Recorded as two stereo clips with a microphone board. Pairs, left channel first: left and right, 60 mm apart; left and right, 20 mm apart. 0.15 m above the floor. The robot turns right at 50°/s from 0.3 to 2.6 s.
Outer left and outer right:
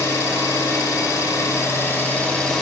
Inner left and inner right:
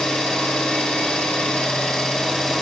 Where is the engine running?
60° left, 1.6 m; by 2.6 s 175° left, 1.6 m.